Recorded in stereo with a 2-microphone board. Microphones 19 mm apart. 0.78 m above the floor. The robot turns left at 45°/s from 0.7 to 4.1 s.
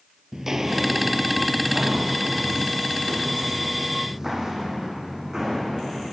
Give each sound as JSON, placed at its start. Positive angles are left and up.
{"t": 0.3, "sound": "footsteps", "side_deg": -35, "distance_m": 1.1}